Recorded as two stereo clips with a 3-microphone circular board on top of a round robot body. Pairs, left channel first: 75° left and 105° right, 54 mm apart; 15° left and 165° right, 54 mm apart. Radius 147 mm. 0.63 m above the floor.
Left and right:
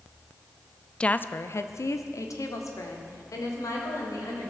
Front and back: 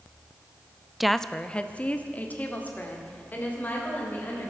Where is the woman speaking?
115° left, 0.6 m; by 4.5 s 75° left, 3.5 m.